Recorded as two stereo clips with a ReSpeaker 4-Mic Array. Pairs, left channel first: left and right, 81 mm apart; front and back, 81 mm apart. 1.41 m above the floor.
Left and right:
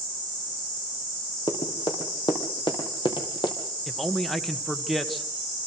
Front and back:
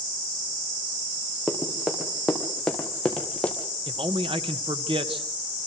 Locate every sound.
1.5 s running footsteps: 95° left, 5 m; by 3.5 s 70° left, 3 m
3.9 s a man speaking: straight behind, 1.5 m